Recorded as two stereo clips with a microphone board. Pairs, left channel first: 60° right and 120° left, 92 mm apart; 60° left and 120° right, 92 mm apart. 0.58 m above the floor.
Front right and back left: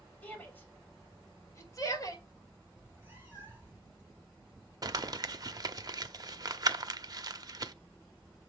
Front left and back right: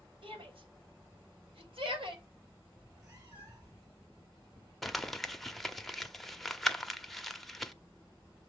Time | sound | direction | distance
0.2 | a shout | 135° right | 3 m
2.8 | a cat meowing | 170° right | 5.5 m
4.8 | crumpling | 145° left | 0.7 m